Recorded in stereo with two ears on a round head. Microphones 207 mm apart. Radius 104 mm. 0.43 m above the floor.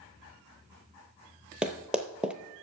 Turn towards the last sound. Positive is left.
turn(degrees=-5)  # may be behind; listen again after turning